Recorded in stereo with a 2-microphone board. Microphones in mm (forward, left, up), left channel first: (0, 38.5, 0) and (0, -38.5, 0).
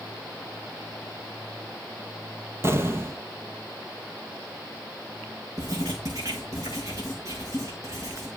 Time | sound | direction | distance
2.6 | an explosion | 35° right (ahead or behind) | 1.3 m
5.6 | writing | 45° right (ahead or behind) | 7.5 m